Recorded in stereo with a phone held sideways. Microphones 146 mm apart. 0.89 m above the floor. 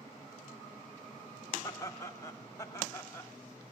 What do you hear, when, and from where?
1.6 s laughter: 20° left (ahead or behind), 1.2 m